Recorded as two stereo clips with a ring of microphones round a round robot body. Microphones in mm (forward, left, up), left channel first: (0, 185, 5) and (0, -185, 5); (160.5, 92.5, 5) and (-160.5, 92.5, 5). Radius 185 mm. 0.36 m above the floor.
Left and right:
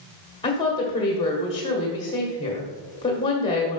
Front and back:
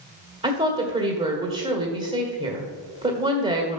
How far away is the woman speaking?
About 1.5 m.